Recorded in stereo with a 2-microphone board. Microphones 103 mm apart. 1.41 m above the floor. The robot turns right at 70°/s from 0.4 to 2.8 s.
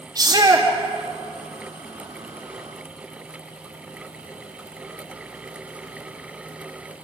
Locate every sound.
0.1 s a shout: 40° right (ahead or behind), 3 m; by 0.7 s 20° right (ahead or behind), 3 m